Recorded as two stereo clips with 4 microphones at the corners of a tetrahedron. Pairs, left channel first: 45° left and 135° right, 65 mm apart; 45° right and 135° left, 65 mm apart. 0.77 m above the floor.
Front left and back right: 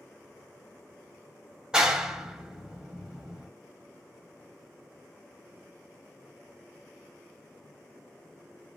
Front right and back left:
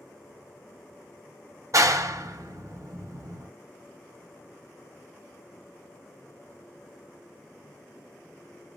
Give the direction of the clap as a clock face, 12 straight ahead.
7 o'clock.